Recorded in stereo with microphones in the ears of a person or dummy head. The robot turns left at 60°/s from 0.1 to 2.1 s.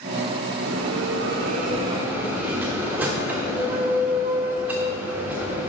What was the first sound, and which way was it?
A bell, 85° right.